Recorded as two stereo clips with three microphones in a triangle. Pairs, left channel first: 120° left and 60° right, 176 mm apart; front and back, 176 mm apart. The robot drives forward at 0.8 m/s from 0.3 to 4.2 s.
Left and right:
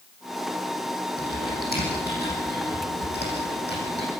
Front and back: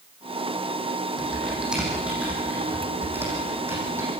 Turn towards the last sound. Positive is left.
turn(degrees=105)